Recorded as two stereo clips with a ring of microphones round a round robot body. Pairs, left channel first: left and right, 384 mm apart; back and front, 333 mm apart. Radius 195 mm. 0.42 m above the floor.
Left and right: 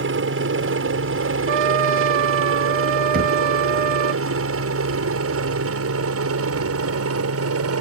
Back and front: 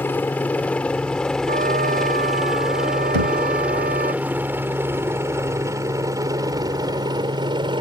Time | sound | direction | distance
0.0 | a helicopter | 100° right | ?
1.5 | a trumpet | 70° right | ?
3.1 | knocking | 20° right | ?